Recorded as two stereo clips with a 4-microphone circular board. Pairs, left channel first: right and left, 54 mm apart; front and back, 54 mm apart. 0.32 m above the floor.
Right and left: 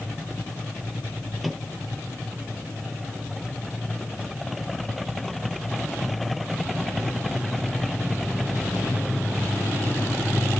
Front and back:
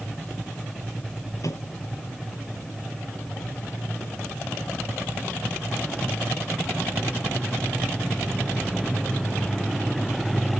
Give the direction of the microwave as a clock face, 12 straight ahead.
12 o'clock.